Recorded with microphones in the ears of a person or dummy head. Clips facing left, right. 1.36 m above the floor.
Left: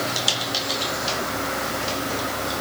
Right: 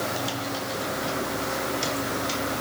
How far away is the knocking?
No knocking in this recording.